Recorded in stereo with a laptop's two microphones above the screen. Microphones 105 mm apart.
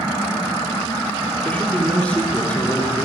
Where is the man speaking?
15° left (ahead or behind), 3 m.